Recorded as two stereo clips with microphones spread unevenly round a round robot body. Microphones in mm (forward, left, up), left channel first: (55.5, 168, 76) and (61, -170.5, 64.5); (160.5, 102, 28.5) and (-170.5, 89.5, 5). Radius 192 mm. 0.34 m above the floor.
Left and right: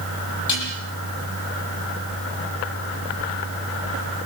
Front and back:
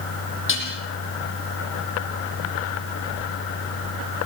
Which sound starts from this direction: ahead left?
Dishes clattering, at 0.5 s.